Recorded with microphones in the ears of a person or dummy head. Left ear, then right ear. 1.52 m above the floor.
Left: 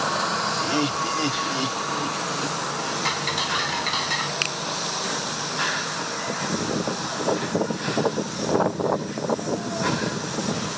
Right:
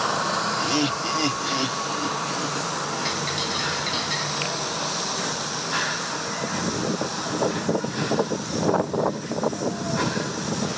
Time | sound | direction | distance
0.6 | laughter | 15° right (ahead or behind) | ?
3.0 | ticking | 40° left (ahead or behind) | ?
4.4 | a finger snap | 35° left (ahead or behind) | ?